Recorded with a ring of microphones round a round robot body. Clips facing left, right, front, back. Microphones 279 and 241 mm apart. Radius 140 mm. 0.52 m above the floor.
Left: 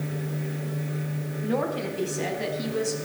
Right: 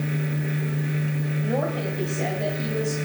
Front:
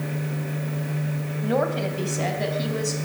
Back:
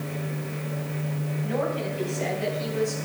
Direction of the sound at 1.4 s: 15° left.